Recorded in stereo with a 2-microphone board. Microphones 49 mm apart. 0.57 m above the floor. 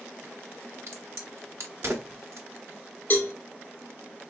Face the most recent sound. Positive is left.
turn(degrees=40)  # may be behind; listen again after turning